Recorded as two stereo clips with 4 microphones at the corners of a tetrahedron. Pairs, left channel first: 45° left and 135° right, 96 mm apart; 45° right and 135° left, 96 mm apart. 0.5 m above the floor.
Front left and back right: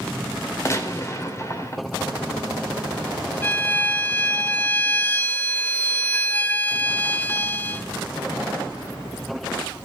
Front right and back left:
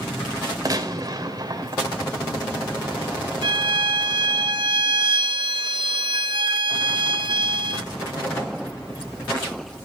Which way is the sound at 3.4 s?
115° left.